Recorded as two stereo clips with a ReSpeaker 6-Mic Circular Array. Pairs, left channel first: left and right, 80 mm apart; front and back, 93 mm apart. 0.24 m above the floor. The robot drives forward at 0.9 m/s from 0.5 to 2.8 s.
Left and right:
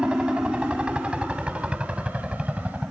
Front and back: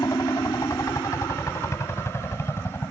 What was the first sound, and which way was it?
A helicopter, 20° right.